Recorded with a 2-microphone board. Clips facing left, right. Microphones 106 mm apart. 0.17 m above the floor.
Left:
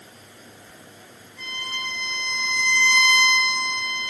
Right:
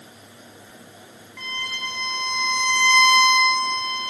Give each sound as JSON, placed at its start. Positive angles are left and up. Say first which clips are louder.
{"t": 1.4, "sound": "a violin", "louder": "right 1 dB", "side_deg": -85, "distance_m": 5.5}